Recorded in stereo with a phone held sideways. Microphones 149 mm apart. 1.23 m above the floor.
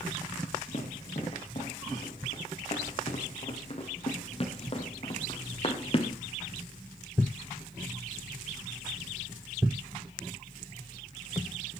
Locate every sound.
0.7 s running footsteps: 45° left (ahead or behind), 4.5 m; by 6.2 s 40° left (ahead or behind), 2.0 m